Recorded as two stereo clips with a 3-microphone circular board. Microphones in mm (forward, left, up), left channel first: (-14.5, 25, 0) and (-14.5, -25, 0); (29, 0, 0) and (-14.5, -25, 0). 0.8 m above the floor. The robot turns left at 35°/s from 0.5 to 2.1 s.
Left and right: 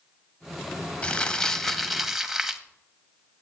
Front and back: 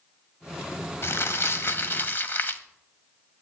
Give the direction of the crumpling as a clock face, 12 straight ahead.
11 o'clock.